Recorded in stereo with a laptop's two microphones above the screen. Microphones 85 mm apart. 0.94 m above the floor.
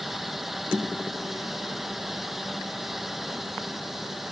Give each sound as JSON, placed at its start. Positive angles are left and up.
{"t": 0.0, "sound": "a fan", "side_deg": -5}